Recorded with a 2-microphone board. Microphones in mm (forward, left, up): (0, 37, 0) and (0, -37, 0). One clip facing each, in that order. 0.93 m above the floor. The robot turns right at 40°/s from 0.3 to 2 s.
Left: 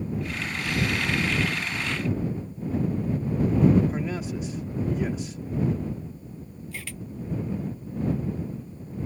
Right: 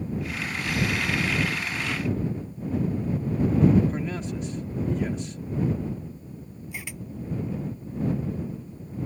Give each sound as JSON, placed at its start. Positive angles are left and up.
{"t": 3.9, "sound": "a man speaking", "side_deg": 5}
{"t": 6.7, "sound": "a camera shutter", "side_deg": -15}